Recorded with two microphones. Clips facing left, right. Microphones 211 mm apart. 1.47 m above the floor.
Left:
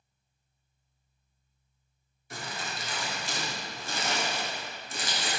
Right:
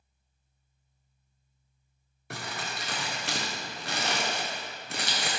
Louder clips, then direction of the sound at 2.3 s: Right 1 dB; 70° right (ahead or behind).